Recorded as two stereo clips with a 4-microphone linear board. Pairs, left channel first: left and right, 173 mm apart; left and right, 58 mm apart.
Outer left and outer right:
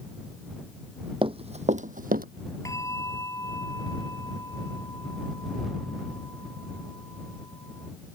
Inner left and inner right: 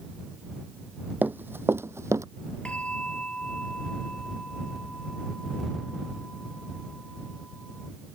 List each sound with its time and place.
1.2 s running footsteps: 30° right (ahead or behind); by 2.2 s 60° right (ahead or behind)
2.6 s a bell: 20° left (ahead or behind)